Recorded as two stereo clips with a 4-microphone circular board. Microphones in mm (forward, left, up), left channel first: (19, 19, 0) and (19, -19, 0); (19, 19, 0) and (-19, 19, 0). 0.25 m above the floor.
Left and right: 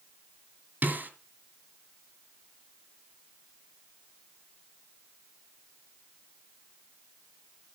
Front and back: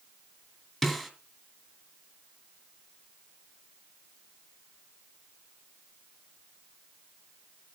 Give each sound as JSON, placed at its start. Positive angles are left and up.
{"t": 0.8, "sound": "a snare drum", "azimuth_deg": -85, "distance_m": 2.0}